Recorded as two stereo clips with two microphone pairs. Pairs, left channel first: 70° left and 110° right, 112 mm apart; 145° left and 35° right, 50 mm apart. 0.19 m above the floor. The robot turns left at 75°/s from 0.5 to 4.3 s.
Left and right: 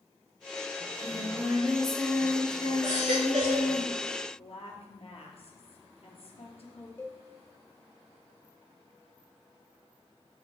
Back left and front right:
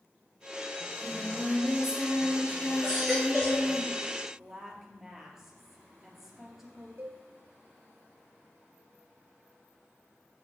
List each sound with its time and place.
0.8 s singing: 115° right, 2.5 m; by 3.8 s 15° left, 2.5 m
2.8 s a baby crying: 100° right, 5 m; by 3.7 s 165° right, 5 m
4.4 s a woman speaking: 50° left, 3 m
7.0 s a cowbell: straight ahead, 2.5 m